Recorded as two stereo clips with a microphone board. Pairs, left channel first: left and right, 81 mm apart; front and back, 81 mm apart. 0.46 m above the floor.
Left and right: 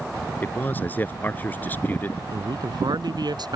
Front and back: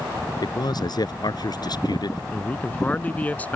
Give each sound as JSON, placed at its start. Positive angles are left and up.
{"t": 0.4, "sound": "a man speaking", "azimuth_deg": 25}
{"t": 2.3, "sound": "a man speaking", "azimuth_deg": -70}